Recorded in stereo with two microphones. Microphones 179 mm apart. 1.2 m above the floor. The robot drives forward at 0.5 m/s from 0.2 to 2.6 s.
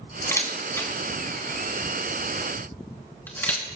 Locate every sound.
0.2 s a camera shutter: 15° left (ahead or behind), 2.5 m; by 3.6 s 10° left (ahead or behind), 3.5 m